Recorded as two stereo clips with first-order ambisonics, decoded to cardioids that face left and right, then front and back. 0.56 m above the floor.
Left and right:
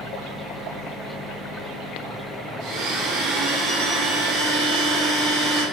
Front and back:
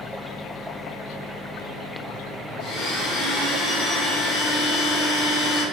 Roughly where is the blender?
Ahead right.